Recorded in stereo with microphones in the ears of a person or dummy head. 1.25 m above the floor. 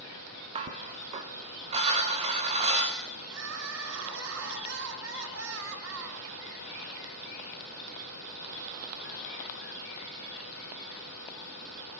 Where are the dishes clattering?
40° right (ahead or behind), 3 m.